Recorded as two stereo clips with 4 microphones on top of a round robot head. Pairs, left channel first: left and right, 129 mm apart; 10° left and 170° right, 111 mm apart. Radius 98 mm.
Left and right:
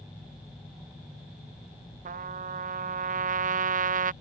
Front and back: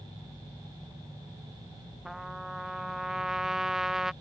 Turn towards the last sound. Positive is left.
turn(degrees=-85)